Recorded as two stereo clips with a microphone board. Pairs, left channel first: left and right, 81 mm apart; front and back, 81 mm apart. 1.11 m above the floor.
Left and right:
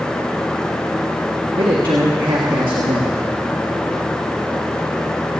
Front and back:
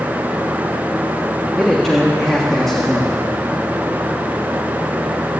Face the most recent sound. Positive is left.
turn(degrees=-85)